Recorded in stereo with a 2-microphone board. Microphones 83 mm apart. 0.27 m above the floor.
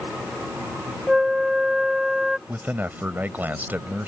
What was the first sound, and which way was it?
A flute, 5° right (ahead or behind).